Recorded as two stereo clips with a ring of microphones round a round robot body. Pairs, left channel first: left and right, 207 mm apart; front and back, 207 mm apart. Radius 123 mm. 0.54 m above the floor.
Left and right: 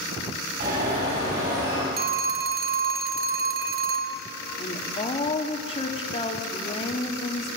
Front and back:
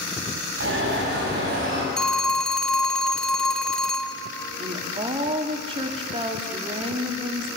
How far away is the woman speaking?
About 1.3 m.